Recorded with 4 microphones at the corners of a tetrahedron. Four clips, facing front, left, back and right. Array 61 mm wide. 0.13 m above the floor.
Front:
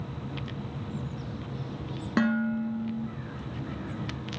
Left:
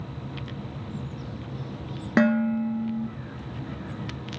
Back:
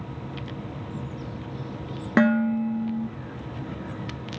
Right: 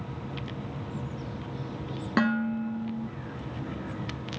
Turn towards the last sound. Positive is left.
turn(degrees=145)